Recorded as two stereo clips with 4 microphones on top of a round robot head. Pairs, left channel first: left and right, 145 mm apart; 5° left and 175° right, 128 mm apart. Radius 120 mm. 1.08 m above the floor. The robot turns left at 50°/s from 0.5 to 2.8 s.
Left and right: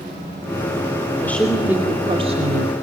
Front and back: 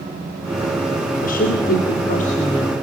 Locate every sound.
1.2 s a woman speaking: 15° left, 2.5 m; by 2.7 s 60° right, 2.5 m